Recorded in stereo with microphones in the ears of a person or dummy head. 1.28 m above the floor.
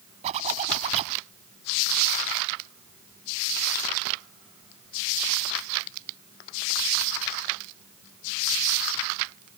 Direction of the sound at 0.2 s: 35° right (ahead or behind).